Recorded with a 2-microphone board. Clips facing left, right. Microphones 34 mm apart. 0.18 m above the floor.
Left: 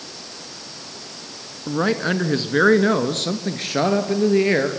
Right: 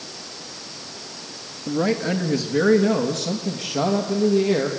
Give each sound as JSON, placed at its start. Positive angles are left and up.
{"t": 1.7, "sound": "a man speaking", "side_deg": 30, "distance_m": 1.8}